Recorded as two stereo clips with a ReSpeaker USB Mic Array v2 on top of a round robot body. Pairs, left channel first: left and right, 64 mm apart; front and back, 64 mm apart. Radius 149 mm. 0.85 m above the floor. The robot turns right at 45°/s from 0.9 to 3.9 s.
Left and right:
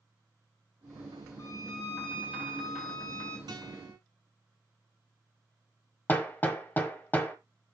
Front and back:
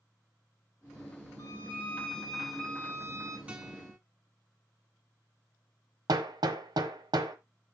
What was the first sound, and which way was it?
A violin, 40° left.